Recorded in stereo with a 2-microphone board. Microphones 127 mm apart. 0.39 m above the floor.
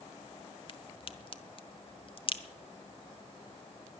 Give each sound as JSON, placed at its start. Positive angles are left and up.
{"t": 0.7, "sound": "a crack", "side_deg": 45, "distance_m": 1.0}